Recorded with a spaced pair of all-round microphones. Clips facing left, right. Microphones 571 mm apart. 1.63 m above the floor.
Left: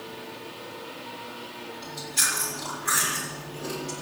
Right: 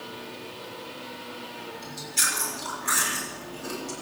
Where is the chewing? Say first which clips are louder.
Left 1 dB; 75° left (ahead or behind), 6.5 m.